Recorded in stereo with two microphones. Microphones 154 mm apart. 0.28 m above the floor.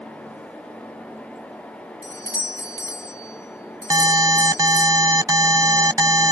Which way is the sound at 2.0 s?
20° left (ahead or behind).